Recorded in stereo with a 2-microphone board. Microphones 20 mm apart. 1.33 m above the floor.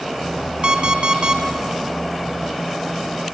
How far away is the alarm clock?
About 1.1 m.